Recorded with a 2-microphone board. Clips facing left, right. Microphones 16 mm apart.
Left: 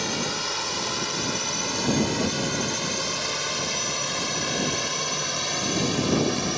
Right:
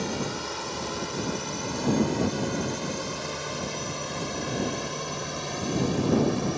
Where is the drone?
35° left (ahead or behind); by 6.6 s 45° left (ahead or behind).